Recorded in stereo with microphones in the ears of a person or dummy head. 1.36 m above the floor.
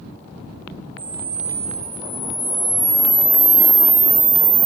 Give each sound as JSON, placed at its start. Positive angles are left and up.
{"t": 1.0, "sound": "a camera shutter", "side_deg": -10, "distance_m": 0.7}